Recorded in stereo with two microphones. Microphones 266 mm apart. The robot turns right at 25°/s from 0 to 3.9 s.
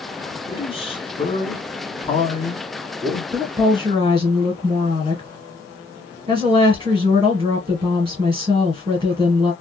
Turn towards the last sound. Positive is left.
turn(degrees=-20)  # may be behind; listen again after turning